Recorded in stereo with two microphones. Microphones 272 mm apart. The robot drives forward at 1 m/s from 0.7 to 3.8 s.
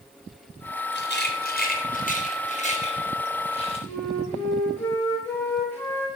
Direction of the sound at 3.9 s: 10° left (ahead or behind).